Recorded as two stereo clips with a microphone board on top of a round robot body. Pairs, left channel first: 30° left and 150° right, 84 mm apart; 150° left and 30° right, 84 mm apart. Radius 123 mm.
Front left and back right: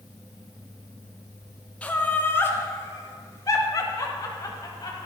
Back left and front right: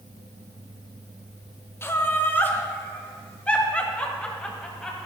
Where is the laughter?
100° left, 1.7 m; by 5.1 s 70° left, 3 m.